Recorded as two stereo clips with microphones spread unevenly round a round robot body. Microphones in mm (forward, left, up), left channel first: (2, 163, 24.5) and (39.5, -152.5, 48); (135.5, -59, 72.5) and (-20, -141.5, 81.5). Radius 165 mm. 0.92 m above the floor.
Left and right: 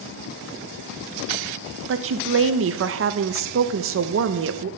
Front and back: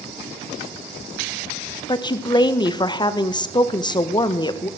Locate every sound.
1.9 s a woman speaking: 35° right, 0.6 m